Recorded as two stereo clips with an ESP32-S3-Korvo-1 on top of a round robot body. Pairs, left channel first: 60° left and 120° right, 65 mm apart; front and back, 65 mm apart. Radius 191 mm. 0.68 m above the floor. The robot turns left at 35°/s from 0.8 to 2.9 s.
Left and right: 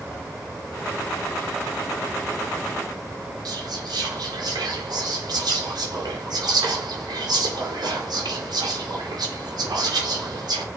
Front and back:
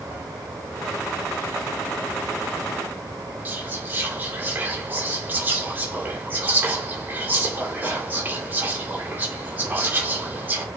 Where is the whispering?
115° right, 2.5 m.